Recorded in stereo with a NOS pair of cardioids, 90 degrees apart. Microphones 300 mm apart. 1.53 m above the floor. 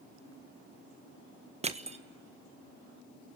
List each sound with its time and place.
1.6 s crushing: 20° right, 1.4 m